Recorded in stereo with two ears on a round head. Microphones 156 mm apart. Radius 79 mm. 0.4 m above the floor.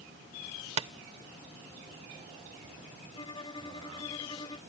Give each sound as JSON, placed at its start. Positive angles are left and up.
{"t": 0.8, "sound": "tapping", "side_deg": -35}
{"t": 3.1, "sound": "a violin", "side_deg": 25}